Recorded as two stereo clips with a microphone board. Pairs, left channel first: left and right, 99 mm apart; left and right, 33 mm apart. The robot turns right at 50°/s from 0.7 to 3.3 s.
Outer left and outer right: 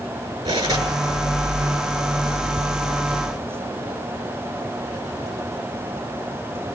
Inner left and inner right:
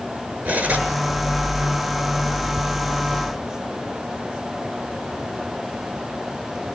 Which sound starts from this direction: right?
Cutlery clinking, at 0.5 s.